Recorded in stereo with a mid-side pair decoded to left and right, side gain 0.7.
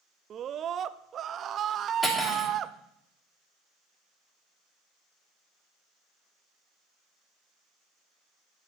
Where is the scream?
40° right, 0.6 m.